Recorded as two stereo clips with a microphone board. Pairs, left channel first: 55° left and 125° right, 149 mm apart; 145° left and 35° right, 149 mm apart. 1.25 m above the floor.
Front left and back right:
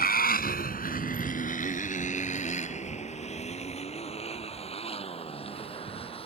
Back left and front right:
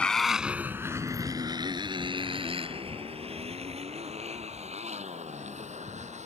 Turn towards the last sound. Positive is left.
turn(degrees=5)